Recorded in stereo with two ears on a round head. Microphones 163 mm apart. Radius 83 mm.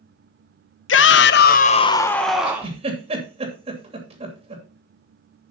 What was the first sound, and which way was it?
A shout, 75° left (ahead or behind).